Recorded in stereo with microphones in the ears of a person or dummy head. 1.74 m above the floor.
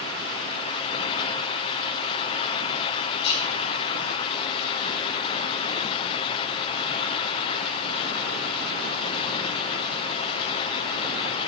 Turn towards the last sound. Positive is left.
turn(degrees=60)  # may be behind; listen again after turning